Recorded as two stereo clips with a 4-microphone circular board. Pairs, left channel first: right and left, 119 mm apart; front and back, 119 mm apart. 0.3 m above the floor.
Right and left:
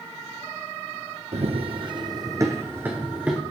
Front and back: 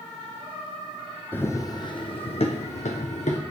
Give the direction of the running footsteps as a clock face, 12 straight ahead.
10 o'clock.